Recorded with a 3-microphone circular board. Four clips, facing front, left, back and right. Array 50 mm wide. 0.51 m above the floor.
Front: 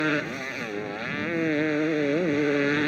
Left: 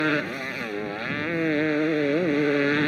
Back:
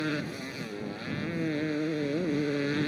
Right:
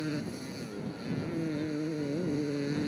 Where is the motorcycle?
55° left.